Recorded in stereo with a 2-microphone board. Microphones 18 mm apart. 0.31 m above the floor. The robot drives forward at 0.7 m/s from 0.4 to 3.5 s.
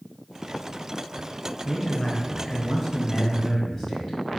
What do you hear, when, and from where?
1.6 s a man speaking: 25° left (ahead or behind), 1.4 m; by 4.2 s 15° left (ahead or behind), 1.9 m